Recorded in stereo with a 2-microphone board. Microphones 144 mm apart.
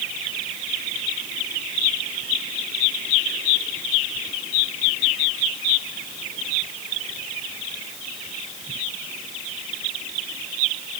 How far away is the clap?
No clap in this recording.